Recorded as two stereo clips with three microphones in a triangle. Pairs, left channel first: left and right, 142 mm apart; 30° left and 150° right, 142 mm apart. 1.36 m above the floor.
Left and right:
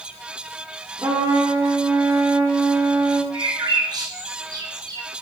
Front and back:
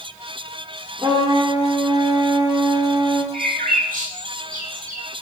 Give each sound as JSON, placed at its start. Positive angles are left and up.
{"t": 1.0, "sound": "a trumpet", "azimuth_deg": -125, "distance_m": 1.0}
{"t": 3.3, "sound": "a bird", "azimuth_deg": -150, "distance_m": 1.2}